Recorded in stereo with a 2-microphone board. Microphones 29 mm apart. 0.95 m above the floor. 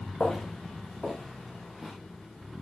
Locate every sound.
0.2 s footsteps: 25° left (ahead or behind), 5 m; by 1.9 s 5° left (ahead or behind), 5 m